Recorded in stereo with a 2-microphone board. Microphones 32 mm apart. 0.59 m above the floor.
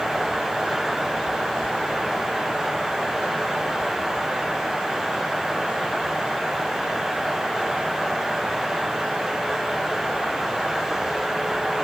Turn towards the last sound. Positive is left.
No sound to turn to.